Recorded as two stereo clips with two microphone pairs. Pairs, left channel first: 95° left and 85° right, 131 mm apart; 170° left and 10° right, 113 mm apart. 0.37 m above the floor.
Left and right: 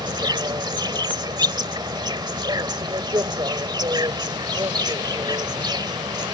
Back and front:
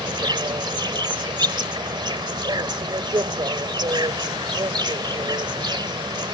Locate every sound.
0.0 s an insect: 40° right